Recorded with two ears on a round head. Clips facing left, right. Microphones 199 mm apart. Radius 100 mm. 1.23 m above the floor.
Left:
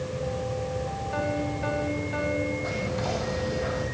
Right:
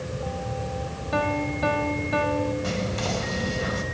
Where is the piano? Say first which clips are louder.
Right 4 dB; 75° right (ahead or behind), 3 m.